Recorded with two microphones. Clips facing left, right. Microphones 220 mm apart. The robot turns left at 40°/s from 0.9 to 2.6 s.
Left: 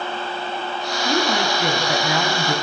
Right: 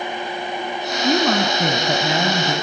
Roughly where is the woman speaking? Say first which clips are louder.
Right 4 dB; right.